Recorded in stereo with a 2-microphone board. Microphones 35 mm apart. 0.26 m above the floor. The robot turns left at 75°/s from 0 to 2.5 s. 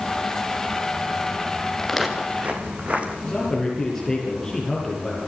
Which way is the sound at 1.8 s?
15° left (ahead or behind).